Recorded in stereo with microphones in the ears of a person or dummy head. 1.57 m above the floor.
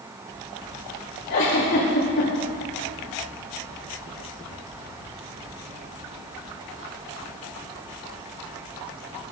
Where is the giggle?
55° left (ahead or behind), 3.5 m.